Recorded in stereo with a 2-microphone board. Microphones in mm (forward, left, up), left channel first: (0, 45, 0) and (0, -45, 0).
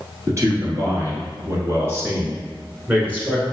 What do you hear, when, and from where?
0.3 s a man speaking: 35° right (ahead or behind), 1.9 m; by 3.4 s 15° right (ahead or behind), 1.4 m